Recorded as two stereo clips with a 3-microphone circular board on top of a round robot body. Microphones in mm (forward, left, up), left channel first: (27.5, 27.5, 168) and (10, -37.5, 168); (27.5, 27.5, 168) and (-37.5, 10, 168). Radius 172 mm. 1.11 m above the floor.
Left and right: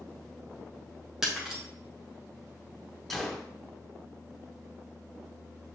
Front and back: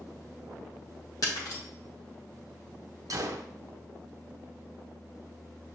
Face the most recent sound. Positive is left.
turn(degrees=165)